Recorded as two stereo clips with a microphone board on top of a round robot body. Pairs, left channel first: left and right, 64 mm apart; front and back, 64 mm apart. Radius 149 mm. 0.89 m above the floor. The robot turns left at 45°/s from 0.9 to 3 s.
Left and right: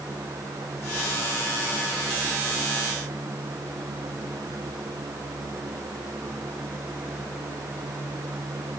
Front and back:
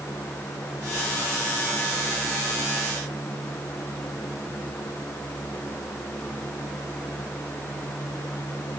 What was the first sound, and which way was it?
Only background noise.